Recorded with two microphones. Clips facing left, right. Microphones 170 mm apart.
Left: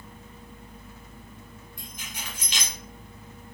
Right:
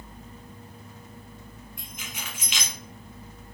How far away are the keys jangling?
About 1.4 m.